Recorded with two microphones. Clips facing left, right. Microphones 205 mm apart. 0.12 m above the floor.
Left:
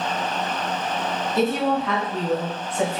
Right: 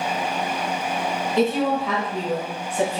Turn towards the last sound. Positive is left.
turn(degrees=-30)  # may be behind; listen again after turning